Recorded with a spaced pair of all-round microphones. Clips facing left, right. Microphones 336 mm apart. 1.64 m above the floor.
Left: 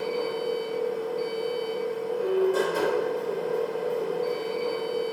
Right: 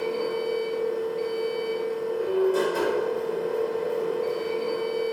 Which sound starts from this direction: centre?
A machine running, at 0.0 s.